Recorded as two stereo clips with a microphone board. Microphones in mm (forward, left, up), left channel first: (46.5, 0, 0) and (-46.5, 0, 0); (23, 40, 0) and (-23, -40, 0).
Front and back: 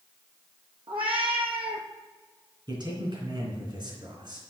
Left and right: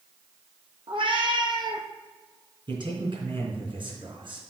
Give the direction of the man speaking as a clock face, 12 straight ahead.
5 o'clock.